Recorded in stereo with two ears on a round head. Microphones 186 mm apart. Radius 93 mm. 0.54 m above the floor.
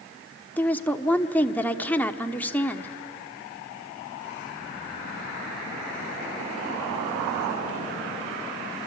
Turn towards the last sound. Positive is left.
turn(degrees=10)  # may be behind; listen again after turning